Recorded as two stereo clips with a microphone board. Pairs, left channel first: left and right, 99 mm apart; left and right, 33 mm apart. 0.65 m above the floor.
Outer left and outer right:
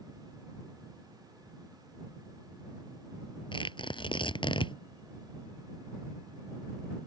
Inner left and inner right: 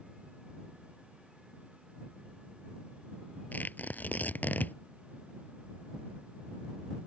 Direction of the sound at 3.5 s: 55° left (ahead or behind).